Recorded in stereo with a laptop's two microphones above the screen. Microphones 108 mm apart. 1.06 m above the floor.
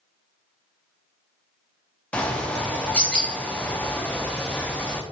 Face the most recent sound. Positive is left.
turn(degrees=10)  # may be behind; listen again after turning